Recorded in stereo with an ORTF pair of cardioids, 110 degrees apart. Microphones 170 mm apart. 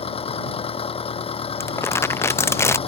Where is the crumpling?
15° left.